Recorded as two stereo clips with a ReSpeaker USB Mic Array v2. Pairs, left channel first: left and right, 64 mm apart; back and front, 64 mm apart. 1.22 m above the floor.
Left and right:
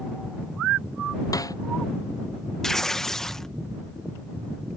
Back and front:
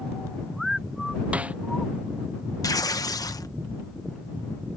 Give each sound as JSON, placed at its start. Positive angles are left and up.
{"t": 1.3, "sound": "a snare drum", "azimuth_deg": 70}
{"t": 2.6, "sound": "tearing paper", "azimuth_deg": 175}